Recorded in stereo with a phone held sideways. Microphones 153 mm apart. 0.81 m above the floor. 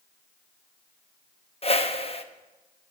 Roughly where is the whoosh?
Left.